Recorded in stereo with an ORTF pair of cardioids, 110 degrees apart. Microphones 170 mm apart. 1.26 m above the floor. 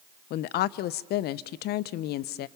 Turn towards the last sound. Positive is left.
turn(degrees=70)